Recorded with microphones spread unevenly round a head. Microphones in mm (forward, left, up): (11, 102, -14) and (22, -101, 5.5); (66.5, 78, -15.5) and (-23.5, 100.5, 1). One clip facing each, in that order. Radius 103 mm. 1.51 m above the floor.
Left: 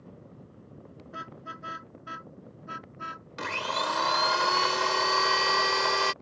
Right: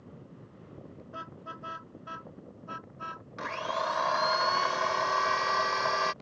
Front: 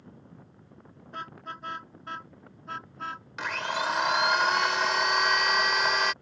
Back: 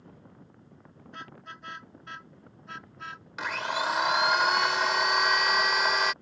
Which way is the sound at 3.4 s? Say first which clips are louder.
Left 1 dB, even; 95° left.